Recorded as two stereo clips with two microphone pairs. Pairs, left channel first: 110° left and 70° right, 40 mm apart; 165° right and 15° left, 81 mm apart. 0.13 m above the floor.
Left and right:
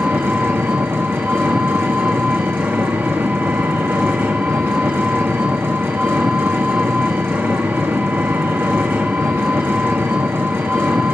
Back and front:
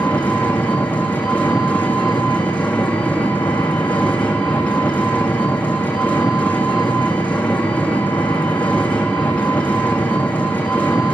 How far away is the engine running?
About 2 m.